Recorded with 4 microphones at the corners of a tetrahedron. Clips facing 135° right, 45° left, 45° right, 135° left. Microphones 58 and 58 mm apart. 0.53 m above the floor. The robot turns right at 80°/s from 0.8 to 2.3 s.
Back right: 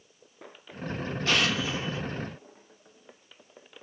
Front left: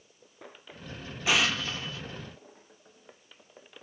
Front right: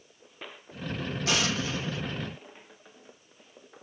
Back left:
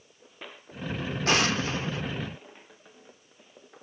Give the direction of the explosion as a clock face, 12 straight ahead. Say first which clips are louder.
Even, back left 4 dB; 8 o'clock.